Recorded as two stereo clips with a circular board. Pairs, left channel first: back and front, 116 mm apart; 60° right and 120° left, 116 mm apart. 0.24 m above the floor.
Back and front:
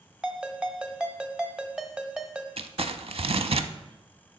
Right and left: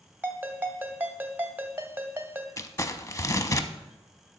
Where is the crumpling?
5° right, 0.5 m.